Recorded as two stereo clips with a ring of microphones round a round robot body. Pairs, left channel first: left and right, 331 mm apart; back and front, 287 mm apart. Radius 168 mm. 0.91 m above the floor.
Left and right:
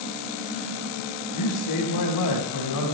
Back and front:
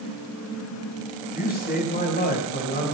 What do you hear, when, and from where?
1.3 s a man speaking: 120° left, 6 m